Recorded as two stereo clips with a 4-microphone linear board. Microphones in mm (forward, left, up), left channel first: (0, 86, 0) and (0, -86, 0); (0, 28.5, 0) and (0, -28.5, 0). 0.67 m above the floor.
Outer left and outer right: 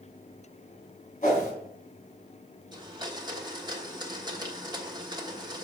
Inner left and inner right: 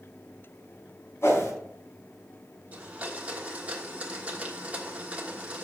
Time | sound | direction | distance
1.2 | a whoosh | 55° left (ahead or behind) | 3.5 m
2.7 | a blender | 25° right (ahead or behind) | 1.3 m